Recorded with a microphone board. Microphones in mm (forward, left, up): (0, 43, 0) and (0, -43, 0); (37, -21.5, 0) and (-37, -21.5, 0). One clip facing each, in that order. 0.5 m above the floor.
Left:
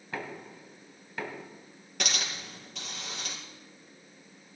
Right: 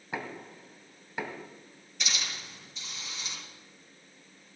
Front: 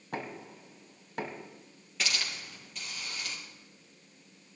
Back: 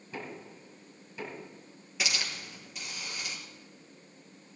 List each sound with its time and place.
0.1 s knocking: 15° right, 1.8 m
2.0 s a hiss: 100° left, 4 m